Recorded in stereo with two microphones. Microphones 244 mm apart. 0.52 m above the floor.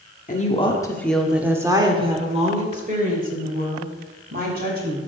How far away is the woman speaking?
About 0.9 m.